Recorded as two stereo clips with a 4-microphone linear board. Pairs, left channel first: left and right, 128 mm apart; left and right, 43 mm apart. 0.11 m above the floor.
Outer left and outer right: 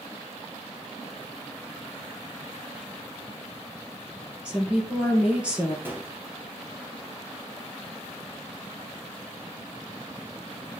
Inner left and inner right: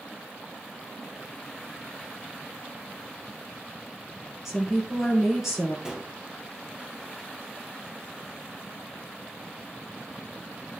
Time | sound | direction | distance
4.5 | a woman speaking | 10° right (ahead or behind) | 2 m
5.8 | a gunshot | 15° right (ahead or behind) | 1.4 m